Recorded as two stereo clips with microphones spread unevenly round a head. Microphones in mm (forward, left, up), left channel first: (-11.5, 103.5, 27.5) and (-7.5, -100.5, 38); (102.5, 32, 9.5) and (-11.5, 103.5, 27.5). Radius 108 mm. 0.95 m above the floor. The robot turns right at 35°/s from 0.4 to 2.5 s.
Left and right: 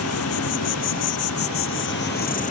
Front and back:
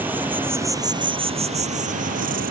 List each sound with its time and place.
0.0 s an insect: 75° left; by 2.5 s 145° left